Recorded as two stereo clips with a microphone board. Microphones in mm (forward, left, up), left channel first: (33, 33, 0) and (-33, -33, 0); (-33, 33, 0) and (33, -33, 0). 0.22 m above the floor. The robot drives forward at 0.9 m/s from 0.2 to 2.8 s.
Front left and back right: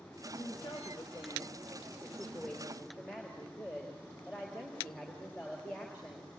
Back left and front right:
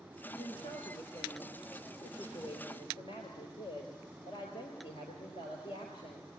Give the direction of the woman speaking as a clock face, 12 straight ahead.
9 o'clock.